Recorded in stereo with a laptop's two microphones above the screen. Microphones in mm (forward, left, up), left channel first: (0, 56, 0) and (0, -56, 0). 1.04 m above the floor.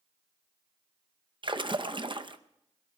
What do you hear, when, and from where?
1.4 s a splash: 45° right (ahead or behind), 0.6 m